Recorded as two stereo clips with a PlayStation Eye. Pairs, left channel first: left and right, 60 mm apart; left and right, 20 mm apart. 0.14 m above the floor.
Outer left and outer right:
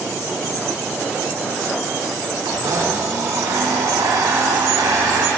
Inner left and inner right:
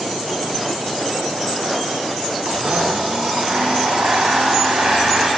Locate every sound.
2.5 s a blender: 80° right, 5 m